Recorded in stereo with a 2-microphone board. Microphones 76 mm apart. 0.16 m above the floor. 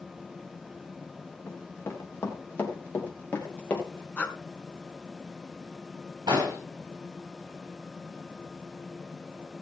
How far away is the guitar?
I don't hear a guitar.